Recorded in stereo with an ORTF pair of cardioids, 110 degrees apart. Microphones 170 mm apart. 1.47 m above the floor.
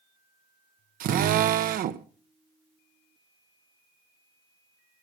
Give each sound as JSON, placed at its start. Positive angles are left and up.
{"t": 1.0, "sound": "a drill", "azimuth_deg": -55, "distance_m": 1.2}